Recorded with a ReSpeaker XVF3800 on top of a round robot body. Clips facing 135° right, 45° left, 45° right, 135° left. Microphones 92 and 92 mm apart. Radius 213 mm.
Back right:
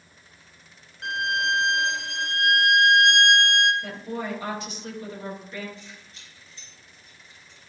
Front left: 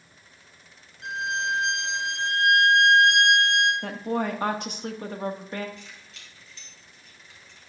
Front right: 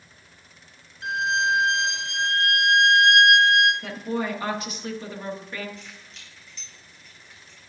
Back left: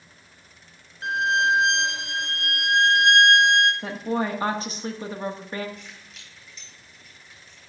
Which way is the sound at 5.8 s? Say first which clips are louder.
Back right 1 dB, even; 50° left.